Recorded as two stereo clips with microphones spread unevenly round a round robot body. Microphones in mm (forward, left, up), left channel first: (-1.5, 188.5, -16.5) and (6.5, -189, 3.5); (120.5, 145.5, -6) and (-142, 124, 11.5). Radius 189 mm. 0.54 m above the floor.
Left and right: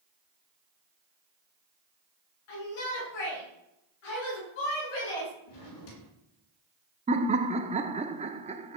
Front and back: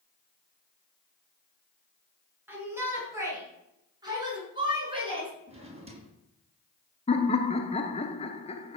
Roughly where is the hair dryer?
No hair dryer in this recording.